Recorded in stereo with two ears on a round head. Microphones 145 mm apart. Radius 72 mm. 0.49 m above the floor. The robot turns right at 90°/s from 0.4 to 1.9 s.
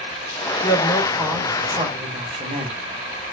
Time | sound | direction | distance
0.6 | a man speaking | 155° left | 1.5 m